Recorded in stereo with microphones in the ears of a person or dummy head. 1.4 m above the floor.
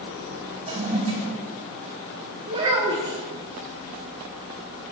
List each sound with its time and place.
0.7 s a toilet flushing: 30° right (ahead or behind), 2.0 m
2.5 s a child speaking: 25° right (ahead or behind), 1.3 m